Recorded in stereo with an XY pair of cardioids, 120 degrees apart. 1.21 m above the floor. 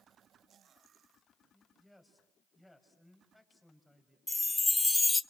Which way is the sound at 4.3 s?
15° left.